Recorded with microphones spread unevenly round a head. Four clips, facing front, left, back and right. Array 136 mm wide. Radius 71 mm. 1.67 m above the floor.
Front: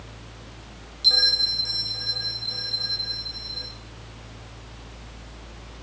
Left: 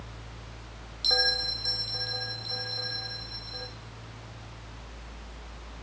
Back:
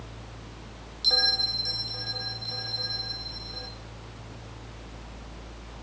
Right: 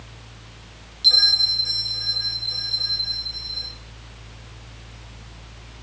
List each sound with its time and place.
1.0 s a bell: 115° left, 1.1 m